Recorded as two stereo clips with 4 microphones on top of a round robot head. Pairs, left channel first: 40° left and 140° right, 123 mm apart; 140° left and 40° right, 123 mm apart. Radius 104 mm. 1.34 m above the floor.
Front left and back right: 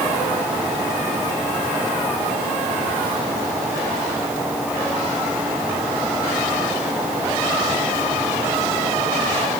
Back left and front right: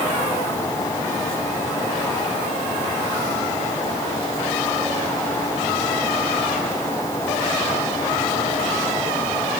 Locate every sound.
Only background noise.